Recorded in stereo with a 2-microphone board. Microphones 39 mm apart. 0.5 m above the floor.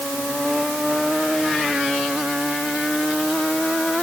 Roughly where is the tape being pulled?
No tape being pulled in this recording.